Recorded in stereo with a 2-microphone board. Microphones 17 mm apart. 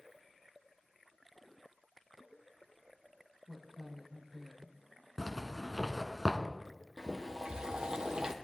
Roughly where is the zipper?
Centre.